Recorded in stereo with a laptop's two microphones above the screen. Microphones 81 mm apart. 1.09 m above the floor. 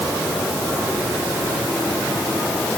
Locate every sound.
Only background noise.